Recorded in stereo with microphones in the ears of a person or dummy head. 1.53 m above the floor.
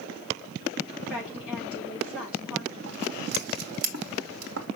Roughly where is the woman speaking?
Centre.